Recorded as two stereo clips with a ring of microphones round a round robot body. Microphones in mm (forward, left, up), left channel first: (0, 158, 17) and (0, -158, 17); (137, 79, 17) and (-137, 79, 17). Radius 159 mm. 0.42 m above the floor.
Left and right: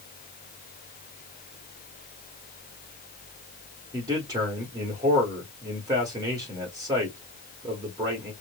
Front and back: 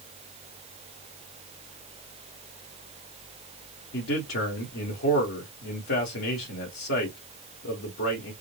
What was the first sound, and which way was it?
A man speaking, 15° right.